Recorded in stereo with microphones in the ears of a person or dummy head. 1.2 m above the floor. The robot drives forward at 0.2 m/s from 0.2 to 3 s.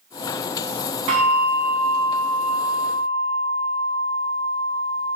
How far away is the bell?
About 1.2 m.